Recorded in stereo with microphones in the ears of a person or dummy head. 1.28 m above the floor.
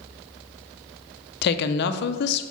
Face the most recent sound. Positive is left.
turn(degrees=60)  # may be behind; listen again after turning